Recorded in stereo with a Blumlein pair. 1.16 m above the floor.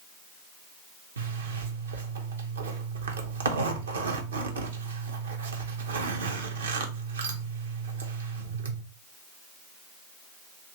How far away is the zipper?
About 0.7 m.